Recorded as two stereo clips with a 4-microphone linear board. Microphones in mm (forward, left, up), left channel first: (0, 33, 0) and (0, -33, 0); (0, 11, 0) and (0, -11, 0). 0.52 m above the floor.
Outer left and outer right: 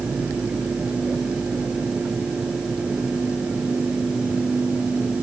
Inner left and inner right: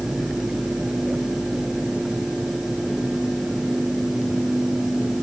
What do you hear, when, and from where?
Only background noise.